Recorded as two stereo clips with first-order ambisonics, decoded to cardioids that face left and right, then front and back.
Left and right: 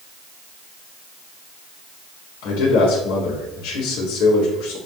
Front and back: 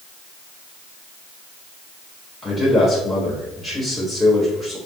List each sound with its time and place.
2.4 s a man speaking: 85° left, 2.5 m